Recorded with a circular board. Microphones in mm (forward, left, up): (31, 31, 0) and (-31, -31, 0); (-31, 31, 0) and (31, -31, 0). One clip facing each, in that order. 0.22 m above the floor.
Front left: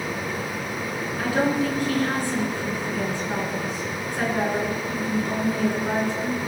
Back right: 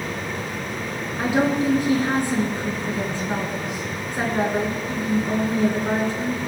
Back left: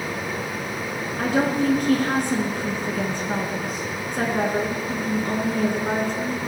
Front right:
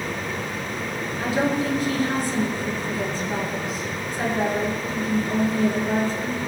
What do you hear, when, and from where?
1.2 s a woman speaking: 160° left, 2 m